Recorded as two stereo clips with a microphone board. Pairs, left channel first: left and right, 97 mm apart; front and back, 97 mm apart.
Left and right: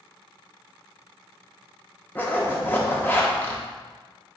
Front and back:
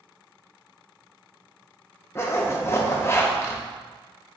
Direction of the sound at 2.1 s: 35° left.